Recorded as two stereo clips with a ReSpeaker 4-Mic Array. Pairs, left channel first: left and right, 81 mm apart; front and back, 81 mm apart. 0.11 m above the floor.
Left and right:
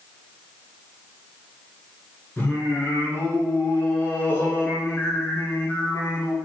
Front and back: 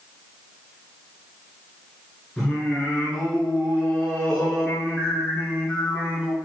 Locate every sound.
2.4 s singing: 70° left, 1.2 m